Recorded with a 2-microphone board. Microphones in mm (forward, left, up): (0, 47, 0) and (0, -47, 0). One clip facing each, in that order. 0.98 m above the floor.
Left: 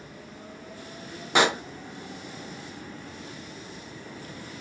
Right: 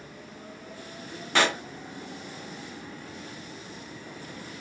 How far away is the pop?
About 0.5 m.